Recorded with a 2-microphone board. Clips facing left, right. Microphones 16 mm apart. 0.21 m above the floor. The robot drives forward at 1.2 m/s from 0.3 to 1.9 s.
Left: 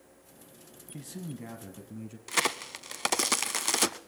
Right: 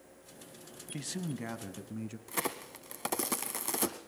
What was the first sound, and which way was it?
A man speaking, 35° right (ahead or behind).